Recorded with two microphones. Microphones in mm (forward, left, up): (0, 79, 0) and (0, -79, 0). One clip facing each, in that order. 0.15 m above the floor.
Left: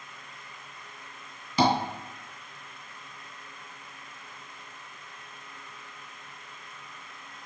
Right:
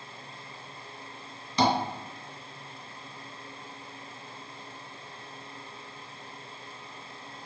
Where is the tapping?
5° left (ahead or behind), 1.8 m.